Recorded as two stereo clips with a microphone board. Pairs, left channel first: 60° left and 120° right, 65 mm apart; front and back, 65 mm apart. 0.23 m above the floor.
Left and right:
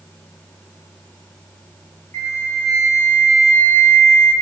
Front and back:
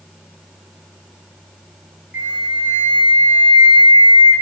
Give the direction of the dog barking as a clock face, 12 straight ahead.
I don't hear a dog barking.